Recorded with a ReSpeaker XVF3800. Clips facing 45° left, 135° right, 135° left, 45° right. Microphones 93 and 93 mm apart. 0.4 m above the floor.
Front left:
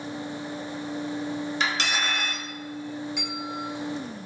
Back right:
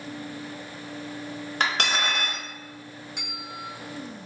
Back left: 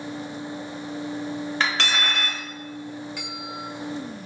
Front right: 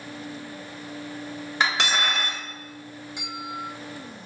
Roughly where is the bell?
Right.